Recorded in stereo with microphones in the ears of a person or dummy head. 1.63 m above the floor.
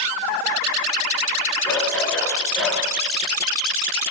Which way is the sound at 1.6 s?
10° left (ahead or behind).